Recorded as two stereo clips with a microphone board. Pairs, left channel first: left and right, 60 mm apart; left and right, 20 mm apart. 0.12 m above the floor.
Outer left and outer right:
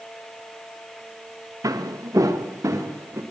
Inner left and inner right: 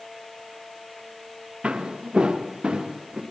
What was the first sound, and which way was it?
Footsteps, 80° right.